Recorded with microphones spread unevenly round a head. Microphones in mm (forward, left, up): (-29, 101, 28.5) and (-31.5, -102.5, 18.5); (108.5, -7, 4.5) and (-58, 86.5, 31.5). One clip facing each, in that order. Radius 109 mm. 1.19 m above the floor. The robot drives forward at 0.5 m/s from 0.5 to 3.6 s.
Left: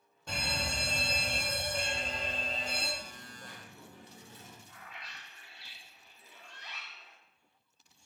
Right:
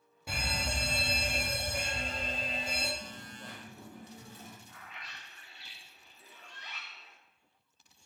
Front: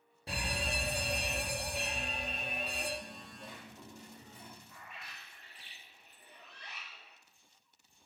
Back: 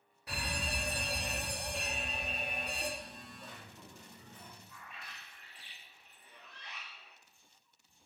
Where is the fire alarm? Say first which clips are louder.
Even, front 2 dB; 20° right, 1.4 m; by 2.9 s 150° right, 1.3 m.